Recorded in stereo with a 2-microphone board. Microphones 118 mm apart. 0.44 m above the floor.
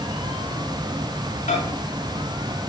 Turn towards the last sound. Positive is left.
turn(degrees=70)  # may be behind; listen again after turning